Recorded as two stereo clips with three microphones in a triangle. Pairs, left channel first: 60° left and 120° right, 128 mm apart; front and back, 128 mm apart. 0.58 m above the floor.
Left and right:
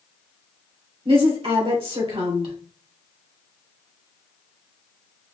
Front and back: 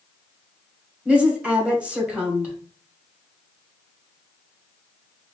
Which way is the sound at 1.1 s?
105° right.